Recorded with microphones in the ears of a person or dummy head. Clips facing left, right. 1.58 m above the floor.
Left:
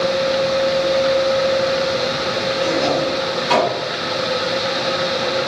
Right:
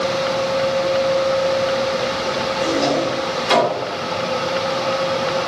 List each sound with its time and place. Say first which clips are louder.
2.6 s a drawer: even; 30° right (ahead or behind), 1.9 m